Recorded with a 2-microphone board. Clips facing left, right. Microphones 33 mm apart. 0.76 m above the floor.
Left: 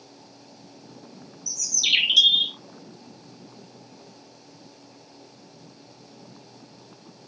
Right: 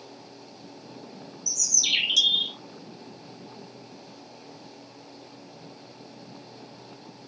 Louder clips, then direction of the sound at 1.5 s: Left 4 dB; 25° left (ahead or behind).